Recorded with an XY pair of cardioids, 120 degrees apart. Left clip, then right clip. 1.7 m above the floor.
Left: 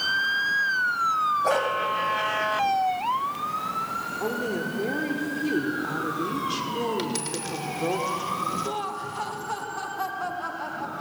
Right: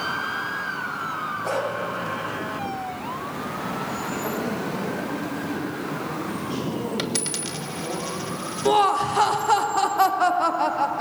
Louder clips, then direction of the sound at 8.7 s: Right 11 dB; 60° right.